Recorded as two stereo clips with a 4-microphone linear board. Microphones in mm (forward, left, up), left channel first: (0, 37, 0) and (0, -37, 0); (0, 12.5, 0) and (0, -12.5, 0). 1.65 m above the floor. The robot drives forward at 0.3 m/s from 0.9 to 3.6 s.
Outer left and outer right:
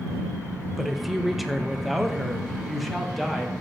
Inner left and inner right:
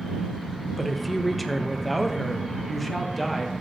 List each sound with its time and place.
0.8 s a woman speaking: centre (ahead or behind), 0.6 m